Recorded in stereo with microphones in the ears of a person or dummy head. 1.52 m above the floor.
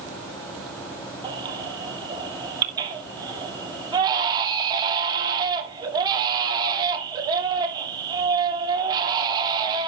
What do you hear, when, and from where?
1.2 s a baby crying: 25° right (ahead or behind), 2.5 m